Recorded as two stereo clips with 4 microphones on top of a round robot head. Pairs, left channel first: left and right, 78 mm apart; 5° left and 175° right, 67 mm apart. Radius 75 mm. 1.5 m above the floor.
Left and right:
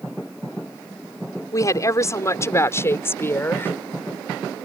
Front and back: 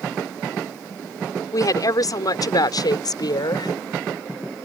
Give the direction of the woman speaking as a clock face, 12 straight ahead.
11 o'clock.